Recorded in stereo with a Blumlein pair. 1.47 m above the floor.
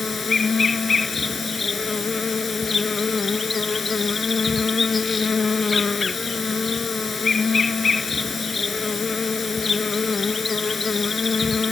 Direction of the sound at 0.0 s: 15° left.